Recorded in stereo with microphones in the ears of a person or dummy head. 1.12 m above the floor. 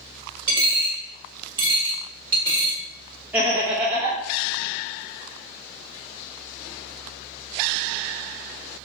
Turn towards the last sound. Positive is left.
turn(degrees=-10)  # may be behind; listen again after turning